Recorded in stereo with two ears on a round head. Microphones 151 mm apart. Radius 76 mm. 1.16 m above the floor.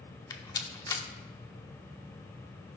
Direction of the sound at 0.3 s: 20° left (ahead or behind).